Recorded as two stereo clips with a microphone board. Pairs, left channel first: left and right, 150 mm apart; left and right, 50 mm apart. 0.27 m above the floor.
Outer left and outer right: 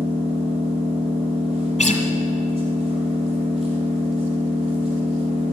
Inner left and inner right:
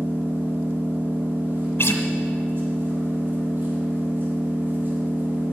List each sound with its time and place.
0.0 s an engine running: 45° right (ahead or behind), 4 m
1.8 s a guitar: 60° left (ahead or behind), 1.4 m